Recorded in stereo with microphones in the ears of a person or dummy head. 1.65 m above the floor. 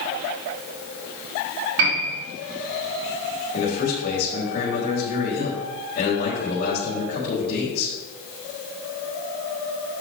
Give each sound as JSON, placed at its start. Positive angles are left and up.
{"t": 1.8, "sound": "a piano", "side_deg": -75, "distance_m": 3.5}
{"t": 3.5, "sound": "a man speaking", "side_deg": 45, "distance_m": 4.5}